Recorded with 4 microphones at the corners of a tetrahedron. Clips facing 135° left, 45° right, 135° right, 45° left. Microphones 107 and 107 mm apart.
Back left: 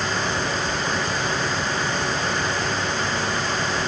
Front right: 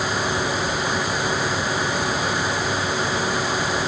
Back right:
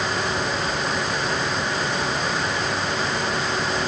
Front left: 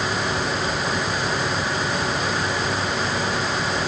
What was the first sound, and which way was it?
Only background noise.